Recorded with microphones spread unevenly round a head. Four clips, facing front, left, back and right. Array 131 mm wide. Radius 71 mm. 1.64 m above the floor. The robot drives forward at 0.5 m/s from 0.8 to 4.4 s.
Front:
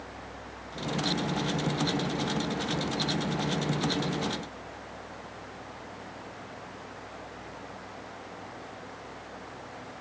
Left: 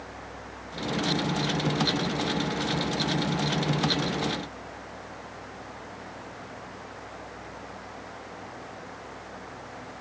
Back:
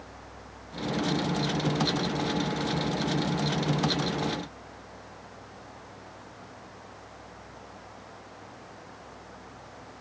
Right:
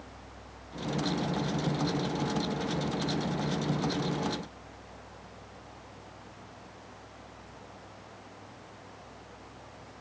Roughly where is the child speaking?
I don't hear a child speaking.